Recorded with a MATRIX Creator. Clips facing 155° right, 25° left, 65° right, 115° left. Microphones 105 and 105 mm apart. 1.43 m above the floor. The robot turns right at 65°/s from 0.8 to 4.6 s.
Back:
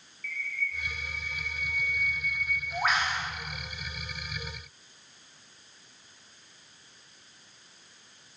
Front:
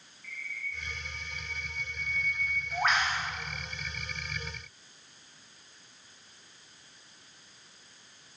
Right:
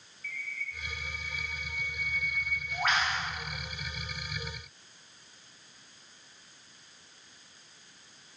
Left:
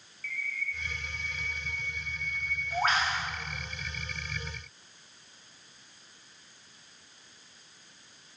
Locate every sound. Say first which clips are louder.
0.2 s a bird: back 6 dB, left 4 dB; 15° right, 0.7 m; by 3.3 s 145° left, 0.7 m